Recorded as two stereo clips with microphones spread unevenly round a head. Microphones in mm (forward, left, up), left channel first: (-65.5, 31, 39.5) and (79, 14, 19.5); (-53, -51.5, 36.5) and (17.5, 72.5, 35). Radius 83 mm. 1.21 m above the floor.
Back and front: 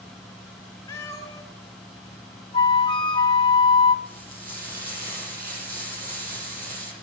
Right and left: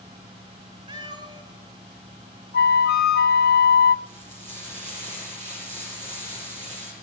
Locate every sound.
0.9 s a cat meowing: 110° left, 2 m
2.5 s a flute: 125° right, 0.8 m
4.0 s frying: 15° left, 6.5 m